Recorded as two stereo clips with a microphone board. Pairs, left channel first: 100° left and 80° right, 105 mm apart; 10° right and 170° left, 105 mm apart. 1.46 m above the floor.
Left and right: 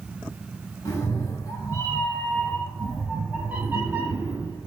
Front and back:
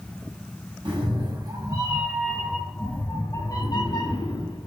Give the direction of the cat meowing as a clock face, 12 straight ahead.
7 o'clock.